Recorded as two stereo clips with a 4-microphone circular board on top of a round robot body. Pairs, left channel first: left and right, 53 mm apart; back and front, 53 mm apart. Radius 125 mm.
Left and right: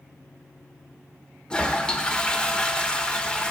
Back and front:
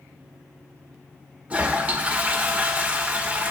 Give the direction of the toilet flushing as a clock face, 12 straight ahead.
11 o'clock.